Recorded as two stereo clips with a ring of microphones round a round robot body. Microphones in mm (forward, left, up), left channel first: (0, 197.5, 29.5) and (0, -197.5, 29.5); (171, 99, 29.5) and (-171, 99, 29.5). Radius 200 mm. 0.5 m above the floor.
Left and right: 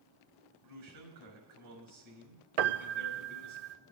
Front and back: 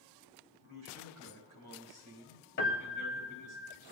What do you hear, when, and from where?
0.6 s a man speaking: 135° right, 7 m
2.6 s a piano: 65° right, 0.7 m